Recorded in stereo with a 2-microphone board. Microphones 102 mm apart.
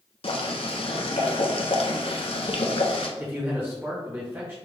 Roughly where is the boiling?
Left.